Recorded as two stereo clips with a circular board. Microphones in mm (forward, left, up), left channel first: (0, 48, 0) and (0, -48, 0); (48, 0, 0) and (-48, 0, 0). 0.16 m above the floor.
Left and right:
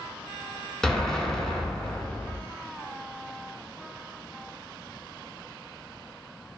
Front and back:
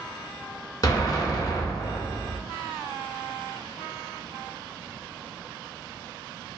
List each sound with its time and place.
0.8 s an explosion: 10° left, 0.5 m